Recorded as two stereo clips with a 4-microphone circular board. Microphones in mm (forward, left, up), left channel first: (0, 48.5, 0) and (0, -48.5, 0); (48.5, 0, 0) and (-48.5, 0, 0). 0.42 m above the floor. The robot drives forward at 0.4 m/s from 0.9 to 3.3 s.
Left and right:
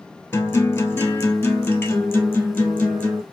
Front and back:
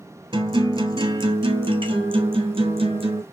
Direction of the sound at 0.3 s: 155° left.